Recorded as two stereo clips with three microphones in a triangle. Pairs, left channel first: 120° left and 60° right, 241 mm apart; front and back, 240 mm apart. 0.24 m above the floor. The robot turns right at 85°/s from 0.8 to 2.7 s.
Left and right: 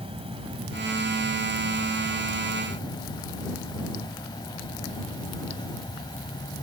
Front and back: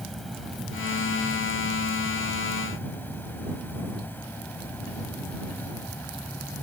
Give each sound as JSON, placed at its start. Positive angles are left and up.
{"t": 0.0, "sound": "an insect", "azimuth_deg": -90}